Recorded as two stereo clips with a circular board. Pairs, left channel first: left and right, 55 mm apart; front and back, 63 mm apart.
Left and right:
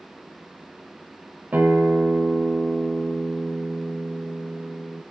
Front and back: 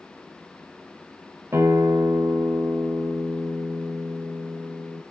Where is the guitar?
145° right, 1.5 m.